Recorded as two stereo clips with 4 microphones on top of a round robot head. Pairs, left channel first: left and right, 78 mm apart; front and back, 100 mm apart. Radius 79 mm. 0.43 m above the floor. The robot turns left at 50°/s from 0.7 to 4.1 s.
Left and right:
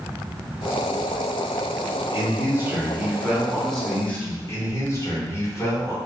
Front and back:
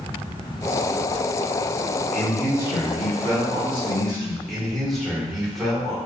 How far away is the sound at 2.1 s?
About 1.5 m.